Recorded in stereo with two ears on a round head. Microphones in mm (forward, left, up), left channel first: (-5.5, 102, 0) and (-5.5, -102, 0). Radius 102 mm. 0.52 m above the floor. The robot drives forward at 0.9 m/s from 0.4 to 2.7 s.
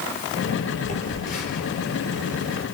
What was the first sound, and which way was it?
A phone buzzing, 35° left (ahead or behind).